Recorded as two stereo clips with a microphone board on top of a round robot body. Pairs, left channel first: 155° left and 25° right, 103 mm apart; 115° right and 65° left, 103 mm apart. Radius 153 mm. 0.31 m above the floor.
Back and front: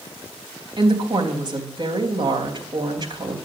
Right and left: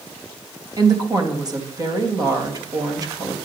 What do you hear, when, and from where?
0.8 s a woman speaking: 20° left, 3.5 m